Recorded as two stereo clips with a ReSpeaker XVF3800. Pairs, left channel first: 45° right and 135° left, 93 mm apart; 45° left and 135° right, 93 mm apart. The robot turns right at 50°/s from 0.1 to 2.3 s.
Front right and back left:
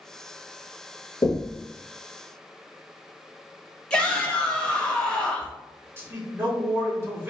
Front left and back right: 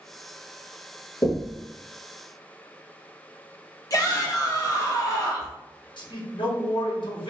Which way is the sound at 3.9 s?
30° left.